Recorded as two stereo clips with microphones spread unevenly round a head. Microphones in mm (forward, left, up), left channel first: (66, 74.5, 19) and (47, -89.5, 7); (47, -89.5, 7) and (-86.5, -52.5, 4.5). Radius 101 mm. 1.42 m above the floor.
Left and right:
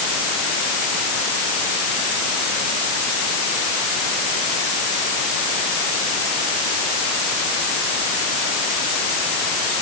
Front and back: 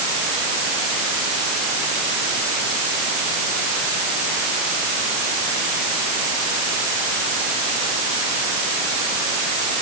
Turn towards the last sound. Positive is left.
No sound to turn to.